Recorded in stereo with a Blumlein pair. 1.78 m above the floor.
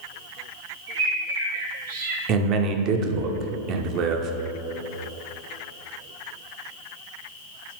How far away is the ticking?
I don't hear ticking.